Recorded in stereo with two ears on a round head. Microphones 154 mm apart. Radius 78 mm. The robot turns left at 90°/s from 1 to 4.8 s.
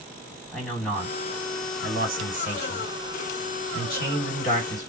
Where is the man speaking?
5° left, 1.8 m; by 4.9 s 25° left, 1.8 m.